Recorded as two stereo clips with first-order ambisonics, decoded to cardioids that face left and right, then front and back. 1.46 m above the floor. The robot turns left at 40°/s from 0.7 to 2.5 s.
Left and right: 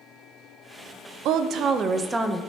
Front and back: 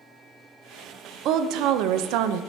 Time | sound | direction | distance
1.2 | a woman speaking | 130° right | 0.5 m